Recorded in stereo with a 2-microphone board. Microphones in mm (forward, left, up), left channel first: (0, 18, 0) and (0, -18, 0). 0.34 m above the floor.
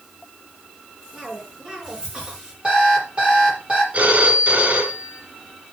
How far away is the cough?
About 5.5 m.